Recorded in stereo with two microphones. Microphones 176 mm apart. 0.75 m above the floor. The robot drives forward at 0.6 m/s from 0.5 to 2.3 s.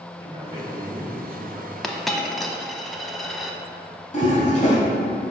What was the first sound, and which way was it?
A man speaking, 25° right (ahead or behind).